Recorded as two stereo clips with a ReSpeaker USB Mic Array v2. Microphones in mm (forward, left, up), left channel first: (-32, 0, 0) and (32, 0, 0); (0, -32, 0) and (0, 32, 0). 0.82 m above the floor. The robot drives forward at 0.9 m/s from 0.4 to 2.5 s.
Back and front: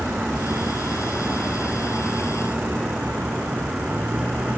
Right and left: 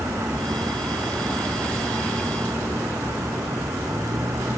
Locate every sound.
0.0 s a vehicle: 70° left; by 4.6 s 65° left